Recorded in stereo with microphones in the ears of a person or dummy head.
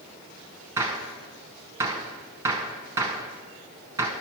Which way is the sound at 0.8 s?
10° right (ahead or behind).